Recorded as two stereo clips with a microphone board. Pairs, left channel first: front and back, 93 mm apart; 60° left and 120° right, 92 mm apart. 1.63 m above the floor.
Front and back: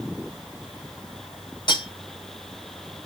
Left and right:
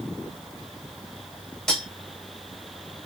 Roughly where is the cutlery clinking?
Ahead right.